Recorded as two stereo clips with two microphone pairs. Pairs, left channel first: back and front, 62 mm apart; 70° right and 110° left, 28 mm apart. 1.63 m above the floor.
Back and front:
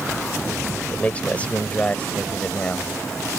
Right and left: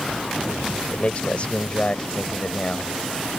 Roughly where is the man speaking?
Behind right.